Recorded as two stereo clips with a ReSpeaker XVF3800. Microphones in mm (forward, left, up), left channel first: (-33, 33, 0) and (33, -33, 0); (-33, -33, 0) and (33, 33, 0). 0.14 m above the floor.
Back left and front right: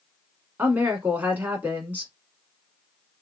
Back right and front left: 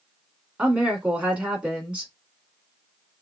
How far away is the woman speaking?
About 1.4 m.